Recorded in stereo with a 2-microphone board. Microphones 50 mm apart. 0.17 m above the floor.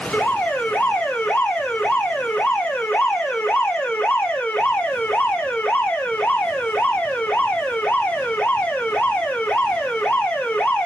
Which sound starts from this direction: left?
An alarm, at 0.1 s.